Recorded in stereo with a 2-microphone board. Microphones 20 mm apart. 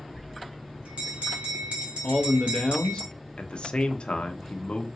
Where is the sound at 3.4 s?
55° left (ahead or behind), 0.7 m.